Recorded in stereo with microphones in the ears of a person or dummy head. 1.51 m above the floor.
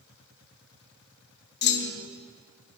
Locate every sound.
1.6 s a clunk: 50° left (ahead or behind), 0.5 m